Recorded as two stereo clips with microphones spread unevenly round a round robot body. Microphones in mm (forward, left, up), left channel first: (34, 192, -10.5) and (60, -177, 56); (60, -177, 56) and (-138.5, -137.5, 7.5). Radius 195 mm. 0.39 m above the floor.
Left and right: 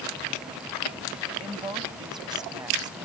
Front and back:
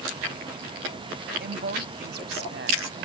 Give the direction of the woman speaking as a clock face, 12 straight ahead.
6 o'clock.